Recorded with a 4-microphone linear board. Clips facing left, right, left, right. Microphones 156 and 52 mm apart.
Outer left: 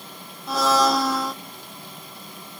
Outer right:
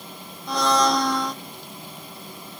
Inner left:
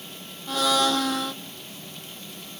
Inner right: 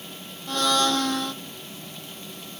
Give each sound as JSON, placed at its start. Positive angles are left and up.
{"t": 0.5, "sound": "a blender", "side_deg": 5, "distance_m": 0.9}